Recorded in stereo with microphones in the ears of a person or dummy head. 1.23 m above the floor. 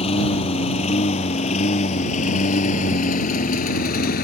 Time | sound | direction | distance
0.0 | a lawn mower | 35° left (ahead or behind) | ?